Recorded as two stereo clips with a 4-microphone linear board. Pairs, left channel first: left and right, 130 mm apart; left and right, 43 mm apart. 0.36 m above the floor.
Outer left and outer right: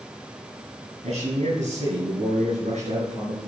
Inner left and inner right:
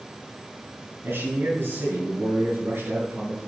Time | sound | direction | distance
1.0 | a man speaking | 65° right (ahead or behind) | 5 m